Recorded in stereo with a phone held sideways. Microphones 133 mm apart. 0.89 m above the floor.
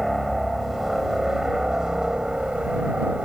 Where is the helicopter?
Centre (ahead or behind); by 3.3 s 10° right (ahead or behind).